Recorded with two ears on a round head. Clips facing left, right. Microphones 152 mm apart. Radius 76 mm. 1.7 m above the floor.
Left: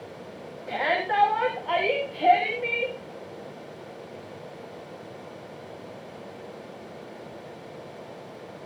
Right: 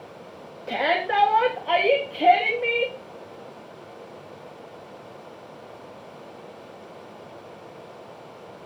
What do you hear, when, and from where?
0.7 s a shout: 45° right (ahead or behind), 3 m